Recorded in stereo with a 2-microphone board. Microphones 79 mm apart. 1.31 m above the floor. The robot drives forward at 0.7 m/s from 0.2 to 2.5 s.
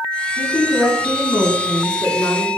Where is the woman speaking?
65° left (ahead or behind), 4 m; by 2.5 s 85° left, 4 m.